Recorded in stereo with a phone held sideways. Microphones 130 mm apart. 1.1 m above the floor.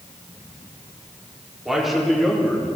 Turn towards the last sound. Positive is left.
turn(degrees=5)  # may be behind; listen again after turning